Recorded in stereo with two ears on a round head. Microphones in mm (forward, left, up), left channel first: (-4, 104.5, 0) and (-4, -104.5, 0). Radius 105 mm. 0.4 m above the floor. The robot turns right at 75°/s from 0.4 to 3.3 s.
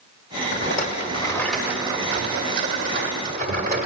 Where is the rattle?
100° left, 1.8 m; by 3.9 s 55° right, 1.8 m.